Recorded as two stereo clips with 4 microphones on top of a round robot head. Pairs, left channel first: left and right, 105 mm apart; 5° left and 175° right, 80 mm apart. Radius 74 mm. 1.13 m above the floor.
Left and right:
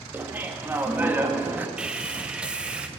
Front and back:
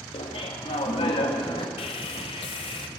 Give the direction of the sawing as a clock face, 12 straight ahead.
12 o'clock.